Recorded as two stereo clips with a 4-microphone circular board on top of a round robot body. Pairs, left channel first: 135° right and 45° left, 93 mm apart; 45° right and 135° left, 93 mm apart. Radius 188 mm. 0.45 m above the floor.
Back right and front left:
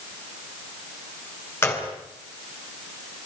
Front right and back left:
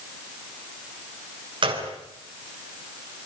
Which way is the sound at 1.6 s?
160° left.